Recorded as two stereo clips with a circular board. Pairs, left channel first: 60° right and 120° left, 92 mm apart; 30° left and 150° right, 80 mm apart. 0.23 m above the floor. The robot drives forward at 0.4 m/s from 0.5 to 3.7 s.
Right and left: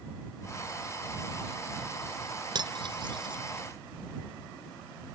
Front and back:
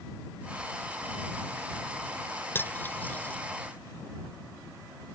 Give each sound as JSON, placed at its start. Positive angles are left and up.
{"t": 2.5, "sound": "cutlery clinking", "azimuth_deg": 90}